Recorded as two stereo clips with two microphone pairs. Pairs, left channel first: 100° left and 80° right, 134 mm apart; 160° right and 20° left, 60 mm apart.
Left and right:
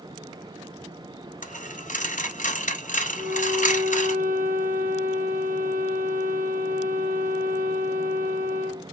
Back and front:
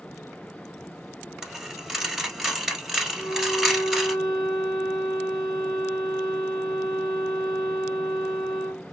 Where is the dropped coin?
100° left, 1.4 m.